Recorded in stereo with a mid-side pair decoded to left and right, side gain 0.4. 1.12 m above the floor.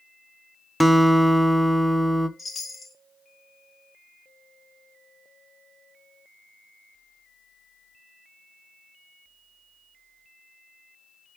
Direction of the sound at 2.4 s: 35° left.